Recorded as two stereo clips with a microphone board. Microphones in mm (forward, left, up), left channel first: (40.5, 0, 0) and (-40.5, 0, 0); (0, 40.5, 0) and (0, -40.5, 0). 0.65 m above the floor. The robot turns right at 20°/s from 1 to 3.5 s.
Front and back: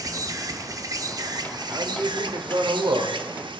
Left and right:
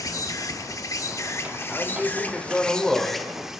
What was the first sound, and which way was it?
An insect, 135° left.